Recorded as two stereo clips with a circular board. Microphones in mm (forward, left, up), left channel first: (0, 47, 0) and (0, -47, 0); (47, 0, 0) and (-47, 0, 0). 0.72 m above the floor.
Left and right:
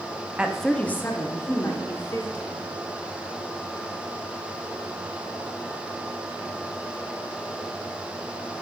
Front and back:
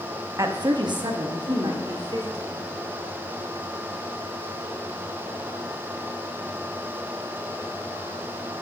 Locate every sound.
0.4 s a woman speaking: 160° right, 0.5 m; by 2.6 s 140° left, 2.5 m